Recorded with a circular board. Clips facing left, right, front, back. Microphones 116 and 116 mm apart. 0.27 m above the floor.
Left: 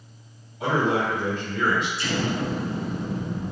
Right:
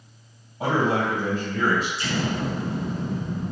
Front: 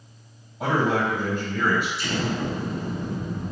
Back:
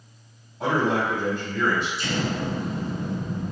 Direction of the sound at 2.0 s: 140° right.